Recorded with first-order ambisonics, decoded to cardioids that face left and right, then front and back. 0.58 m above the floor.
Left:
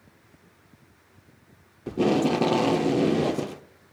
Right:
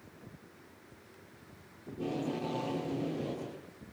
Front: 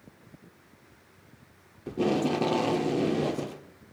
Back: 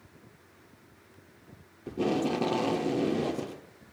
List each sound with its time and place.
1.9 s tape being pulled: 85° left, 0.8 m